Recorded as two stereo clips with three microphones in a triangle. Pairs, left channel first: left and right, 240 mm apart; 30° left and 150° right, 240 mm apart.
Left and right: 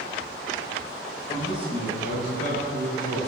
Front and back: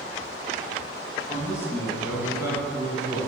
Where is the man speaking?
50° left, 1.0 m; by 3.2 s 80° right, 2.5 m.